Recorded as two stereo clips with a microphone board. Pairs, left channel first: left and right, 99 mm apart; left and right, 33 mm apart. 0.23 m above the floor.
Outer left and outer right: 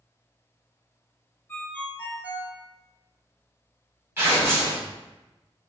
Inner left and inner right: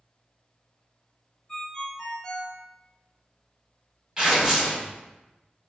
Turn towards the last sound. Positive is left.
turn(degrees=-25)  # may be behind; listen again after turning